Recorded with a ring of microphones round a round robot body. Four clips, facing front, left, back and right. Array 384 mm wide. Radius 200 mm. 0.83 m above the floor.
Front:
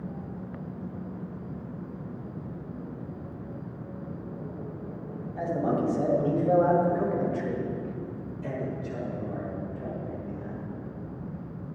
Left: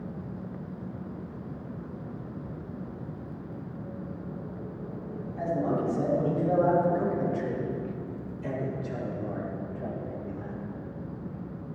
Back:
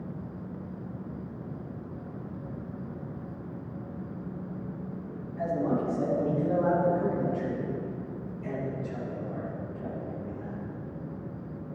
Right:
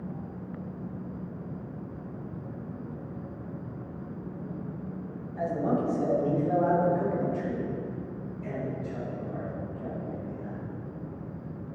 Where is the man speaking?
5° right, 6 m; by 10.6 s 85° left, 5 m.